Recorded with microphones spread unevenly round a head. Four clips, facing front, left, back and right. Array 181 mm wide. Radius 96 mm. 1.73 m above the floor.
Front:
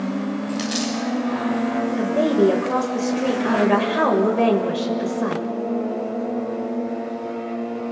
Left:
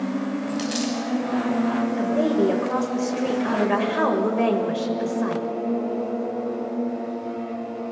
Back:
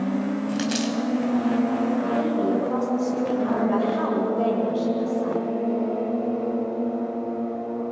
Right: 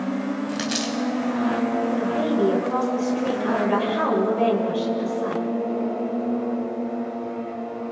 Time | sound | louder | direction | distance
0.5 | a dropped coin | left 1 dB, even | 150° right | 2 m
2.0 | a woman speaking | left 3 dB, front 5 dB | 20° left | 6.5 m